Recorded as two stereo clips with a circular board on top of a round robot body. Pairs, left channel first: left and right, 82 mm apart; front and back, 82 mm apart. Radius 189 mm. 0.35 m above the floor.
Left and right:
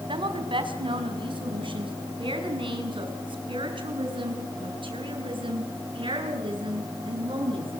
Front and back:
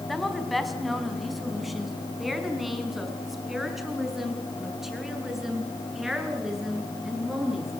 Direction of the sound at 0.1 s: 90° right.